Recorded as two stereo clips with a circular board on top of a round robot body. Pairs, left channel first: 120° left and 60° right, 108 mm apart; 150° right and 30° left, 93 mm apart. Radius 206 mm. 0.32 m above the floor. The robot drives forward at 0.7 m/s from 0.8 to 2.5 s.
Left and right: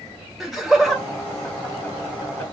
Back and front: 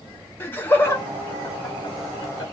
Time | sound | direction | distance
0.4 | laughter | 145° right | 1.0 m